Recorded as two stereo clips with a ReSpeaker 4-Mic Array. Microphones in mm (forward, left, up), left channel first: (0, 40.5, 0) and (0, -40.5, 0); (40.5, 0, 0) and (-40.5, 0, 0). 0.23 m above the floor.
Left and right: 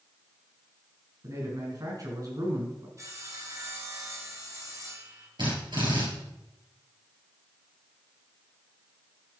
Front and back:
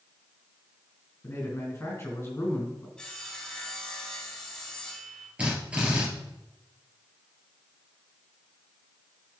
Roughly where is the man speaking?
Ahead right.